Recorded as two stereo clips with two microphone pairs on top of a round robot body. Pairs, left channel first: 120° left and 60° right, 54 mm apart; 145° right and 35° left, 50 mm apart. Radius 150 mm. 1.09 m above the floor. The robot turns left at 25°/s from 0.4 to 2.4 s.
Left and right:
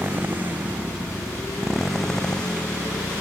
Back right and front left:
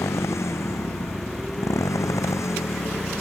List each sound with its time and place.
0.0 s a motorcycle: 115° right; by 3.2 s 165° right